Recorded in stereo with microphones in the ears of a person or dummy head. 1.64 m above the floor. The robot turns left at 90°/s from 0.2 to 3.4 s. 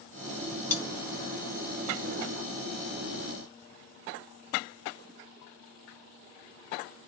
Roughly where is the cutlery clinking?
Centre.